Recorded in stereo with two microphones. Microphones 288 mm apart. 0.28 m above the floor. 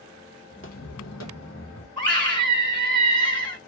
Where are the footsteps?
35° left (ahead or behind), 0.8 m; by 1.9 s 40° left (ahead or behind), 1.5 m.